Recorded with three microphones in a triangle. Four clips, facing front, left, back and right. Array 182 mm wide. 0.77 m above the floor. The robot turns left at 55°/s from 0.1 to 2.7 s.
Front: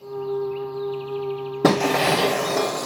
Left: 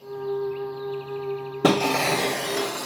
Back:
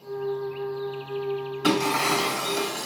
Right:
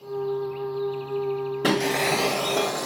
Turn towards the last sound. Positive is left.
turn(degrees=-30)